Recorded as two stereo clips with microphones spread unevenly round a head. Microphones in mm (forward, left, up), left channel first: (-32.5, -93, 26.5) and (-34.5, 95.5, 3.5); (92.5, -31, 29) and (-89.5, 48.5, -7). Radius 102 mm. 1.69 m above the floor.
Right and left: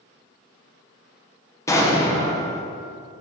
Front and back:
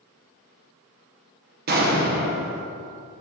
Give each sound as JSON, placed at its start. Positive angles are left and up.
{"t": 1.7, "sound": "an explosion", "azimuth_deg": -160, "distance_m": 0.9}